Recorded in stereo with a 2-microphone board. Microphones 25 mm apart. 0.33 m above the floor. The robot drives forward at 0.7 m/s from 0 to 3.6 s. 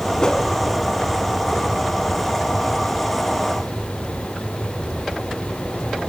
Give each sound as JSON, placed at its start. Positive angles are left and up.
{"t": 0.2, "sound": "a whoosh", "side_deg": 30, "distance_m": 2.5}